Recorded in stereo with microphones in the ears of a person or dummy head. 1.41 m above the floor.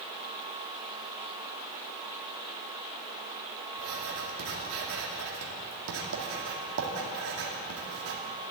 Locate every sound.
3.8 s writing: 75° right (ahead or behind), 2 m